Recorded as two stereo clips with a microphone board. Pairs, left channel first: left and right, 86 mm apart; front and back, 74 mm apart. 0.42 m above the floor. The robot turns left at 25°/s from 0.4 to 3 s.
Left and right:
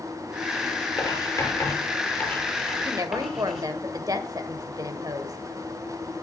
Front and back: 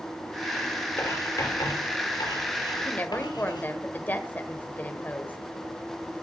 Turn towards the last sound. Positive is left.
turn(degrees=-60)